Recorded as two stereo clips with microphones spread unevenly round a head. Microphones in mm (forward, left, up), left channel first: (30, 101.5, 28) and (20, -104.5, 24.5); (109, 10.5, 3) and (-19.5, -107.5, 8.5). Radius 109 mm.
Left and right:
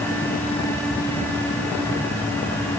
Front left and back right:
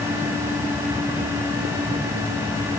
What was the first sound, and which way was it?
Only background noise.